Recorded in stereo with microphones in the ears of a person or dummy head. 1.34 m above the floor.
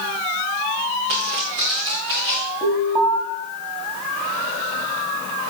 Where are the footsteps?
60° right (ahead or behind), 5.5 m; by 2.5 s 70° right (ahead or behind), 6 m.